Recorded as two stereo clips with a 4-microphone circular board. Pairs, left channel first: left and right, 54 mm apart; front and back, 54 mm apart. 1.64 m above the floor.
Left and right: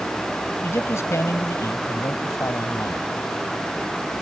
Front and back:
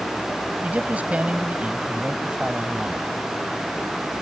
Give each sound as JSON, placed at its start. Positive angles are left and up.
{"t": 0.6, "sound": "a man speaking", "azimuth_deg": 120}